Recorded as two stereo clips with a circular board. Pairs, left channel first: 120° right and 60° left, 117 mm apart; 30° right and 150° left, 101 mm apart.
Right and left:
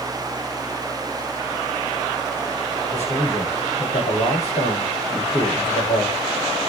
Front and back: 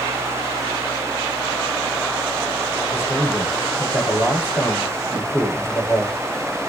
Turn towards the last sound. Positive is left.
turn(degrees=-95)